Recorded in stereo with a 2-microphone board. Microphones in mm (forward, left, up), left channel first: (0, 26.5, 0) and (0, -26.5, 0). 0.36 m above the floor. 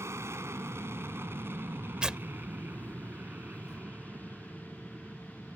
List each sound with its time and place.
0.0 s an aircraft: 60° right (ahead or behind); by 5.5 s 20° right (ahead or behind)
2.0 s tearing paper: 15° right (ahead or behind)